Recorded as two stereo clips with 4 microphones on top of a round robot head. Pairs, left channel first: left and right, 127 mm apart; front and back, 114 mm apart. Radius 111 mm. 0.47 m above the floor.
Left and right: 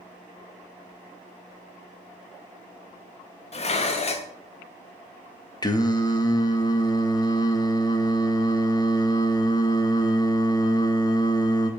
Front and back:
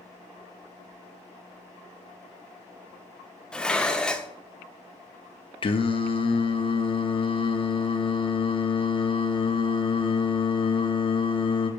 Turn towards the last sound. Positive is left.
turn(degrees=35)